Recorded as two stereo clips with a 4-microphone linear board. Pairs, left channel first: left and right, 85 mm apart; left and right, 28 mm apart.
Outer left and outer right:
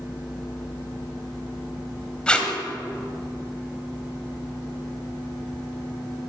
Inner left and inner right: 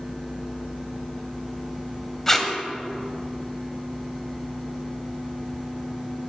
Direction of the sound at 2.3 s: 10° left (ahead or behind).